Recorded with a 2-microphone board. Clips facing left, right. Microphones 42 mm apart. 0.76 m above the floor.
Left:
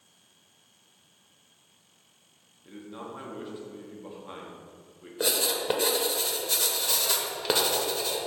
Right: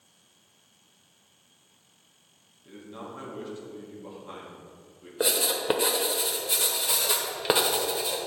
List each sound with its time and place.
2.6 s a man speaking: 15° left (ahead or behind), 1.3 m
5.2 s writing: 20° right (ahead or behind), 0.9 m